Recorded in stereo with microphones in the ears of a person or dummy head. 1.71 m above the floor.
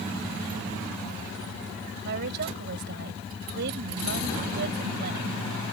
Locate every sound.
2.0 s a woman speaking: 55° right (ahead or behind)